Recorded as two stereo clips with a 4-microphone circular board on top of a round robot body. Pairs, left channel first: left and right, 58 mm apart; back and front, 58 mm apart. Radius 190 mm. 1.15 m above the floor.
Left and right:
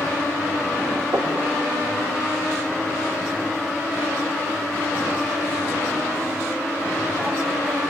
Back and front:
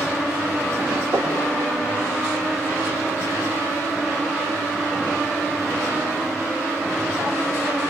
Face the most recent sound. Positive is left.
turn(degrees=-45)